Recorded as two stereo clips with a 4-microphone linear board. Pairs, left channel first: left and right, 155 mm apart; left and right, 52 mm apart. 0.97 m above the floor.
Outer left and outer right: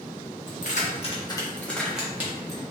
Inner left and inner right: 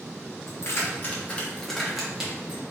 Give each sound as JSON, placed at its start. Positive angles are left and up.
{"t": 0.5, "sound": "keys jangling", "side_deg": 60, "distance_m": 1.1}